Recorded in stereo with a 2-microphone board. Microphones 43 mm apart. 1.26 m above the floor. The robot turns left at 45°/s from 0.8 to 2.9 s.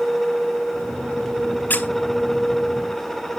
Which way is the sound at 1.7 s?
45° left (ahead or behind).